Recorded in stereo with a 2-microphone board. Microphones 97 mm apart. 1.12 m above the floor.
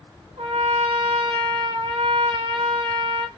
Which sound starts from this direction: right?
A trumpet, at 0.4 s.